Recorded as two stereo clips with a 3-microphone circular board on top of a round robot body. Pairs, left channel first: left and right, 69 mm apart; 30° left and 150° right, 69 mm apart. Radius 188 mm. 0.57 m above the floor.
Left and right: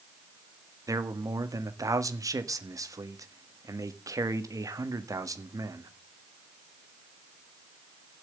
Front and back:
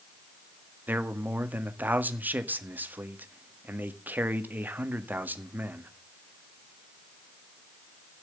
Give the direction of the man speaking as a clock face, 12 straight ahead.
3 o'clock.